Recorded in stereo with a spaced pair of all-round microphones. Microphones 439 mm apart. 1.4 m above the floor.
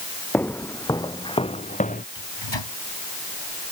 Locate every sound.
0.3 s footsteps: 5° left (ahead or behind); by 2.0 s 20° left (ahead or behind)
2.1 s a microwave: 90° left